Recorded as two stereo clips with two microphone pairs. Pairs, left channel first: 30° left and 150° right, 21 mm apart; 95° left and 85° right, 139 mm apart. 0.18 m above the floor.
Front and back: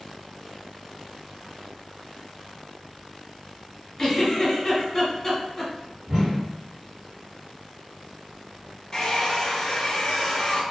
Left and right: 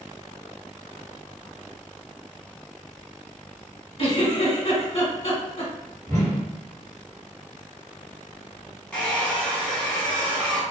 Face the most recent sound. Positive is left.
turn(degrees=20)